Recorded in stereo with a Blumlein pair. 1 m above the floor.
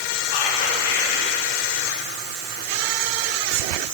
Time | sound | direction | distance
0.3 | whispering | 55° left | 1.7 m